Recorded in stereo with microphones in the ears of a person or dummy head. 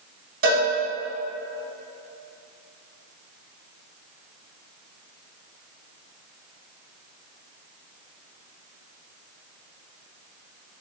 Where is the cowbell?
40° right (ahead or behind), 0.8 m.